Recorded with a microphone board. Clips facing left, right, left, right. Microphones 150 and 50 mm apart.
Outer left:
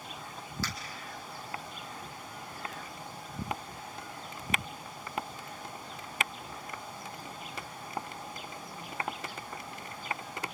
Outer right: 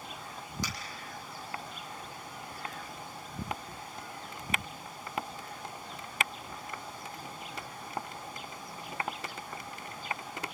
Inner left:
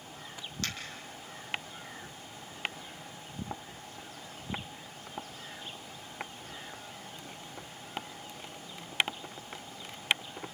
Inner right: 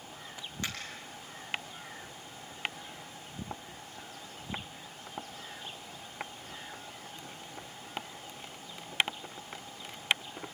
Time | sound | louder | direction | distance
0.6 | a finger snap | outer left 2 dB, even | 15° right (ahead or behind) | 5.5 m